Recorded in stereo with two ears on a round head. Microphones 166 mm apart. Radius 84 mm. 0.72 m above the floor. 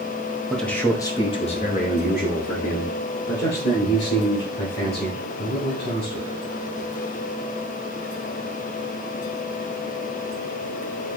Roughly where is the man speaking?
Centre.